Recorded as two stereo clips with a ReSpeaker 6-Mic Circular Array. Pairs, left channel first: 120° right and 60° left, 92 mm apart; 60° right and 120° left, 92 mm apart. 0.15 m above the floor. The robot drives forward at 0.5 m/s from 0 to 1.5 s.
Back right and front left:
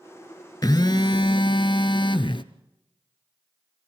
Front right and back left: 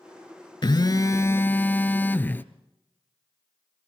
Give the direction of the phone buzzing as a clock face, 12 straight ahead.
3 o'clock.